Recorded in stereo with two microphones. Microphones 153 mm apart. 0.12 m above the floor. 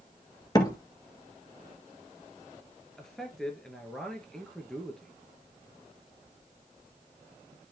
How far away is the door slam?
About 1.4 m.